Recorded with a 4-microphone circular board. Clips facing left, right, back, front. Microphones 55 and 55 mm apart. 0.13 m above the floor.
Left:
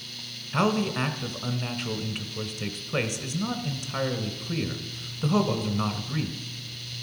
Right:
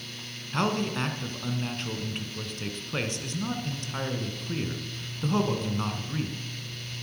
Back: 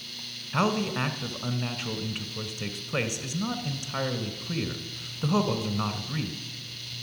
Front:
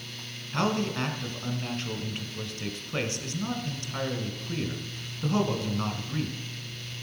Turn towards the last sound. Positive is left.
turn(degrees=155)